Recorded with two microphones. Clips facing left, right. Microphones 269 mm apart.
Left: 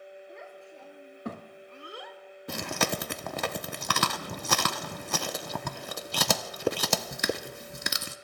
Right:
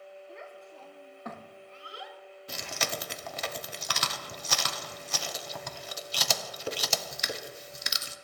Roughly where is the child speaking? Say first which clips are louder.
Left 1 dB; centre.